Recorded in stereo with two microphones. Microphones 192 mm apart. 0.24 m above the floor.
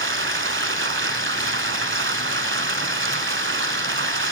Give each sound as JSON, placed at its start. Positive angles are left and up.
{"t": 0.0, "sound": "running water", "side_deg": -75, "distance_m": 0.8}